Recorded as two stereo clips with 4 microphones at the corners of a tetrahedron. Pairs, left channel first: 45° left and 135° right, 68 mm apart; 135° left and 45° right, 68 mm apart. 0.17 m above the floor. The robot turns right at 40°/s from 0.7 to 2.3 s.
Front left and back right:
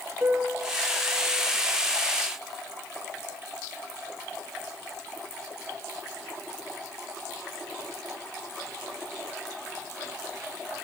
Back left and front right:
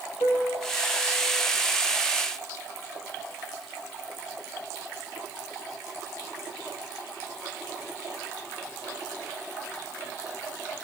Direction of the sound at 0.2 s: 155° left.